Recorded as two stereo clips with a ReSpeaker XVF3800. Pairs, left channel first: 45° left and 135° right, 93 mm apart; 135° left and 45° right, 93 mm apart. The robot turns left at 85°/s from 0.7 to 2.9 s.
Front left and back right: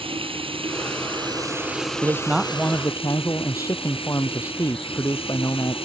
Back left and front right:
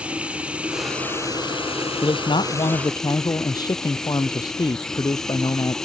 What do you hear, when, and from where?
0.0 s running water: 125° right; by 5.9 s 50° left
2.0 s a man speaking: 170° left; by 5.8 s 95° left